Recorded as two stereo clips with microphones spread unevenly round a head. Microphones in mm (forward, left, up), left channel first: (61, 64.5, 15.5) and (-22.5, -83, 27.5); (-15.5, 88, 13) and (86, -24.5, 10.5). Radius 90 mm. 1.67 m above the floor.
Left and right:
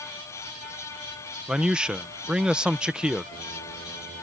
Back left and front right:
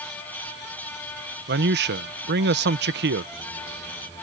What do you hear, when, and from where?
1.5 s a man speaking: 35° right